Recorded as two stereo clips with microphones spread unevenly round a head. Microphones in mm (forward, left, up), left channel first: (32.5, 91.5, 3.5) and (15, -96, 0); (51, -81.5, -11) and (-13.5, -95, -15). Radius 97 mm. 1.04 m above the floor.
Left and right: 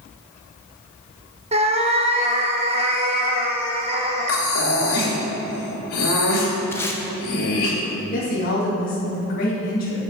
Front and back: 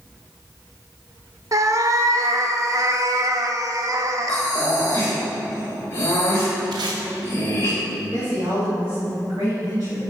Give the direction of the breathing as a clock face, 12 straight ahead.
9 o'clock.